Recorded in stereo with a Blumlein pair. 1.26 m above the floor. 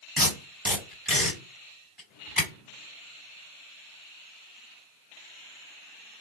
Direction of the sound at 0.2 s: 5° left.